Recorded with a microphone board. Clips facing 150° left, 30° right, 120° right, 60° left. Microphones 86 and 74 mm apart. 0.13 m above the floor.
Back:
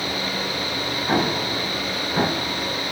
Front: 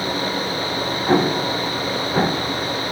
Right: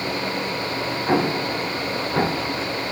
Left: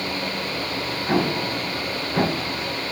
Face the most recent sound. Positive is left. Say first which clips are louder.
# front 5 dB, right 1 dB
turn(degrees=-60)